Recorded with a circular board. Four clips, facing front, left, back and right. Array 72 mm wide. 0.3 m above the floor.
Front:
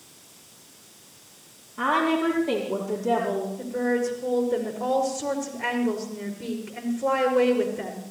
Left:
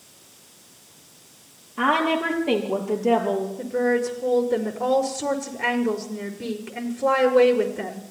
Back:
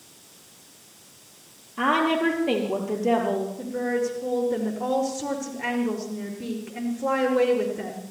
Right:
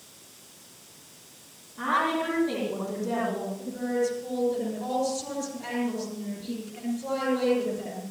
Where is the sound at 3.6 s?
100° left, 5 m.